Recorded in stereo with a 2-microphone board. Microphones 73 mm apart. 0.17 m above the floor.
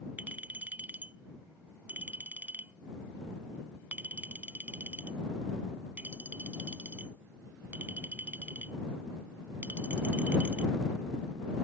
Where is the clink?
25° right (ahead or behind).